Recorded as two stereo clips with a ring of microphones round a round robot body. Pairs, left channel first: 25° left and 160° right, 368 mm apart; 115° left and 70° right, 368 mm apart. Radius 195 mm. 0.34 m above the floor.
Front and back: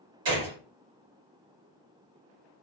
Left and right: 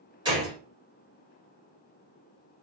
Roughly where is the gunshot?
Behind right.